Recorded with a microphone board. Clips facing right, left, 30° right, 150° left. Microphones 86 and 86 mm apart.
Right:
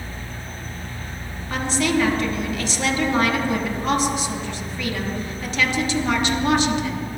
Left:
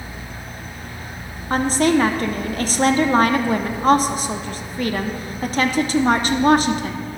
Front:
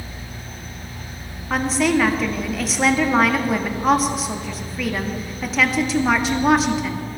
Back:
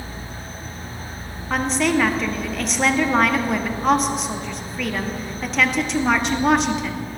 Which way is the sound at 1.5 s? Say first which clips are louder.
Left 5 dB, front 1 dB; 60° left.